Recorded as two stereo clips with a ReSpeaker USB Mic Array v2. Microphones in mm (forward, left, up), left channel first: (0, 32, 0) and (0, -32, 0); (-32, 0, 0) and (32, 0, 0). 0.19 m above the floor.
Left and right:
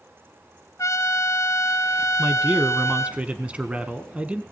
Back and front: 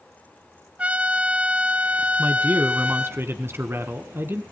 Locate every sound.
0.8 s a trumpet: 65° left, 1.3 m
2.2 s a man speaking: 30° right, 1.4 m